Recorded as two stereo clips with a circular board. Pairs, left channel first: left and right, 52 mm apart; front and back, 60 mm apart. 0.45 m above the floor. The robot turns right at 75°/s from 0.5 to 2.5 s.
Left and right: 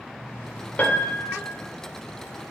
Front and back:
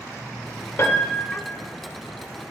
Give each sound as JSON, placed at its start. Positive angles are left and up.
{"t": 0.8, "sound": "a piano", "azimuth_deg": 35, "distance_m": 0.7}